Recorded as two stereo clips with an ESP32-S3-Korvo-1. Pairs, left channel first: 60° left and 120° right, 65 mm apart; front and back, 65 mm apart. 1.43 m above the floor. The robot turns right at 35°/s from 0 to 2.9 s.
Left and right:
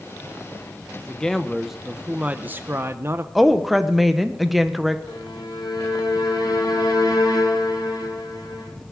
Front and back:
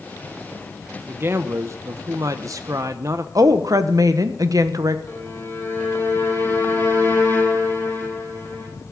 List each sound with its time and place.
1.1 s a man speaking: 135° left, 0.6 m; by 3.2 s 160° right, 0.6 m
3.4 s a woman speaking: 155° left, 1.0 m
5.1 s a violin: 60° left, 5.5 m